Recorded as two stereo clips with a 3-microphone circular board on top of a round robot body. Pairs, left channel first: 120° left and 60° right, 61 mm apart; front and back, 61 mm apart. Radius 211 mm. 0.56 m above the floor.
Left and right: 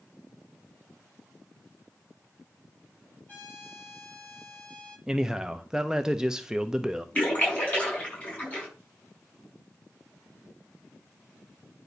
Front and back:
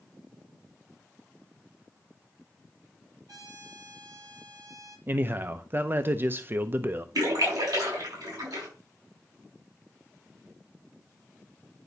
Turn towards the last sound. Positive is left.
turn(degrees=-175)